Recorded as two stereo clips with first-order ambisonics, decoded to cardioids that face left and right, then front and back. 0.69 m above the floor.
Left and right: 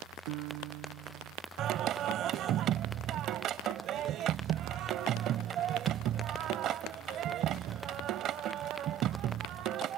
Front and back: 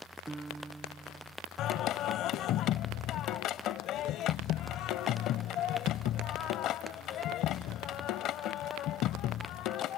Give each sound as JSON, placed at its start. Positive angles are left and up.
{"t": 0.3, "sound": "a piano", "azimuth_deg": -100}
{"t": 1.6, "sound": "singing", "azimuth_deg": -45}